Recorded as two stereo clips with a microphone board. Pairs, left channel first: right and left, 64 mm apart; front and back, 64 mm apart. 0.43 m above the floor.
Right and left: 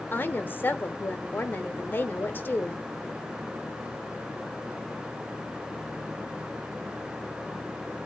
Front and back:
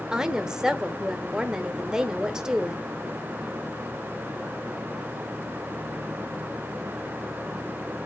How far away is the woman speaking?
About 1.2 m.